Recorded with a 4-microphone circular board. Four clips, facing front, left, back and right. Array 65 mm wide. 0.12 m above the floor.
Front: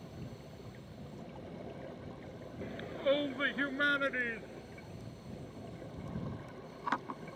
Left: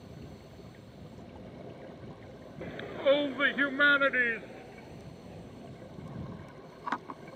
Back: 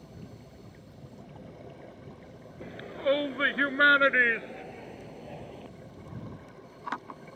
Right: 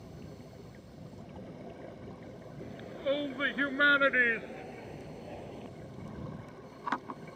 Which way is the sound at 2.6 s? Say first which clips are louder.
Left 7 dB, back 4 dB; 100° left.